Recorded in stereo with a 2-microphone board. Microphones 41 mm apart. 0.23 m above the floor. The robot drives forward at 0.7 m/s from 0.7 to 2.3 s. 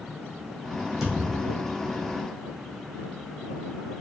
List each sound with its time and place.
1.0 s a thud: 15° right (ahead or behind), 2 m; by 1.8 s 20° right (ahead or behind), 1.8 m